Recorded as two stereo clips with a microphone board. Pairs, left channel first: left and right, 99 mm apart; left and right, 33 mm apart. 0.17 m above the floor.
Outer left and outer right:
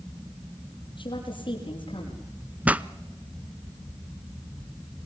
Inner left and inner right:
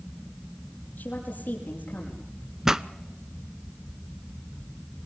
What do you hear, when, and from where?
1.0 s a woman speaking: 50° left (ahead or behind), 5 m
2.6 s a pop: 15° right (ahead or behind), 0.6 m